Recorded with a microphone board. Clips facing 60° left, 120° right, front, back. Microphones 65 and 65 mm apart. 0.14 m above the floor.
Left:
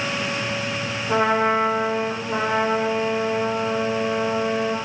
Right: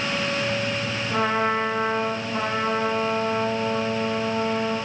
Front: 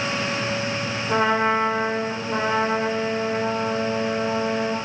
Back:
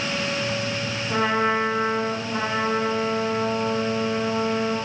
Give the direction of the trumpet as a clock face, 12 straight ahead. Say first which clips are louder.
Left 4 dB, front 2 dB; 10 o'clock.